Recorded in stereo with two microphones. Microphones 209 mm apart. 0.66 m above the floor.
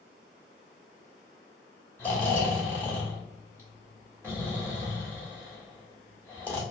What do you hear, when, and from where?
2.0 s snoring: 10° left (ahead or behind), 1.9 m